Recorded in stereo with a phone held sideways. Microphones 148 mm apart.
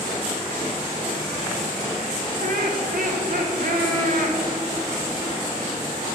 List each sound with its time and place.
2.4 s laughter: 70° right (ahead or behind), 1.9 m